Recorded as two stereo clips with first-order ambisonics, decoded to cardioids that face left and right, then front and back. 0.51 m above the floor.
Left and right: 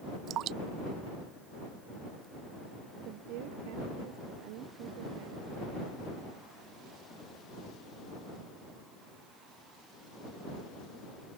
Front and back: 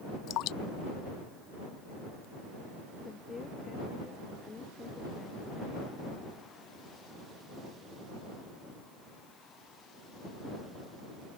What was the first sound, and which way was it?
Dripping, 40° right.